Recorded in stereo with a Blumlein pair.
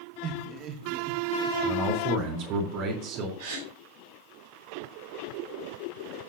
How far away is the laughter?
About 1.3 m.